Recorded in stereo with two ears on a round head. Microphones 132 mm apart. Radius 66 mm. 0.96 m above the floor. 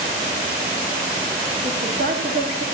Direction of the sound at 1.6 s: 55° right (ahead or behind).